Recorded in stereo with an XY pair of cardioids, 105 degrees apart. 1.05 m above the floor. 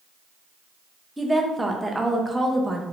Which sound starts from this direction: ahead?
A woman speaking, at 1.2 s.